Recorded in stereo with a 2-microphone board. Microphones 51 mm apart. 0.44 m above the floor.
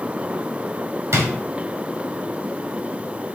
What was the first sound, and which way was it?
A drawer, 65° right (ahead or behind).